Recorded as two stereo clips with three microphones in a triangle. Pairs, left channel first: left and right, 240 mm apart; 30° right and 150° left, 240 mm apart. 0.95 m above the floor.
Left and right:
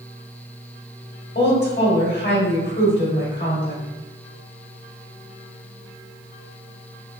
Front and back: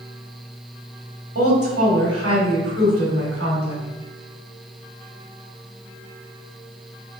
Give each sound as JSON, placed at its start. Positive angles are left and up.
{"t": 1.4, "sound": "a woman speaking", "azimuth_deg": 130, "distance_m": 1.4}